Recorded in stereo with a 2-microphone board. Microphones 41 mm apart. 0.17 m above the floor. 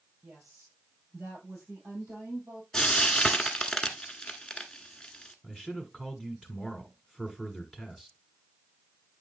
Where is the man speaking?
10° right (ahead or behind), 1.4 m.